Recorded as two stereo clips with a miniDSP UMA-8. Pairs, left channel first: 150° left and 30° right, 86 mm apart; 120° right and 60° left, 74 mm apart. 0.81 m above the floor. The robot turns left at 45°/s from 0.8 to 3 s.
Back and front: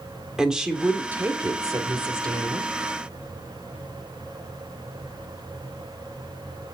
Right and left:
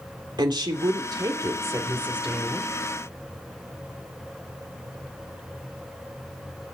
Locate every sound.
0.4 s a woman speaking: 50° left, 2.5 m; by 2.7 s 35° right, 2.5 m